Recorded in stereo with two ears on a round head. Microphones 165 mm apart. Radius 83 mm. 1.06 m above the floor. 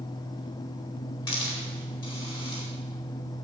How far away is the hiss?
About 4 m.